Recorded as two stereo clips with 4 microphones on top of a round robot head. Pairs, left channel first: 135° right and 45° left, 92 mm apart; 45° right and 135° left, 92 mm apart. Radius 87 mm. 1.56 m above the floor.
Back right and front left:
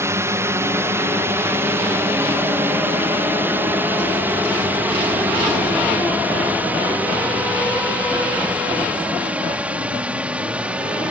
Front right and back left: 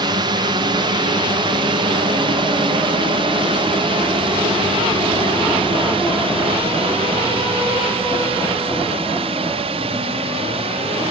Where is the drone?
105° left; by 11.1 s 125° left.